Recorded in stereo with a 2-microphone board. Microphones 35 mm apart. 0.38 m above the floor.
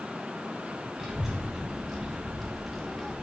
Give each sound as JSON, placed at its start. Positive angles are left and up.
{"t": 1.0, "sound": "a child speaking", "side_deg": -10, "distance_m": 1.5}